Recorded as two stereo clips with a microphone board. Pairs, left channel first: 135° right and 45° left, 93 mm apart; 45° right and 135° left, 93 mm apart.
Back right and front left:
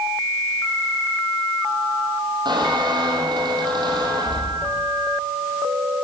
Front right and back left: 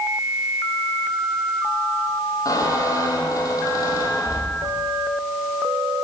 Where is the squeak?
5° left, 7 m.